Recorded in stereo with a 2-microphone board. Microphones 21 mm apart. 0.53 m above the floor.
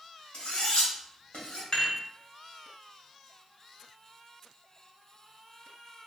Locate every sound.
0.3 s cutlery clinking: 75° left (ahead or behind), 1.5 m
1.7 s dishes clattering: 50° left (ahead or behind), 1.2 m